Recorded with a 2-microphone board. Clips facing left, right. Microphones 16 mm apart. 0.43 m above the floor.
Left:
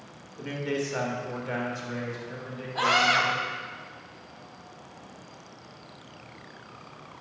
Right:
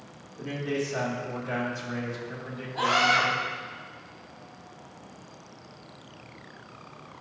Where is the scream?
30° left (ahead or behind), 2.0 m.